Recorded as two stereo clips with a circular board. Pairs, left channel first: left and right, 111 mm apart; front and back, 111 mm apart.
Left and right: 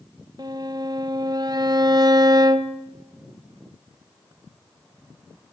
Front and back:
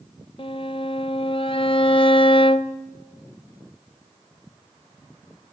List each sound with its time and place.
0.4 s a violin: 40° right, 1.0 m